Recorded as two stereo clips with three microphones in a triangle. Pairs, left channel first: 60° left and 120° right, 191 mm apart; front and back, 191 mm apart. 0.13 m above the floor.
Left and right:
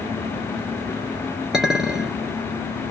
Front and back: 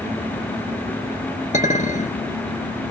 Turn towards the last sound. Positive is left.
turn(degrees=-35)